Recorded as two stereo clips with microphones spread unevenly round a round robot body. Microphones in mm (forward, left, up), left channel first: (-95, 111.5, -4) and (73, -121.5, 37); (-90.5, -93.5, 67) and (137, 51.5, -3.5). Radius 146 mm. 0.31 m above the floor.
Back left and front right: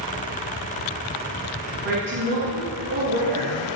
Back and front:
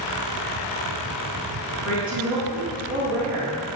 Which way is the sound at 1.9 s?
Straight ahead.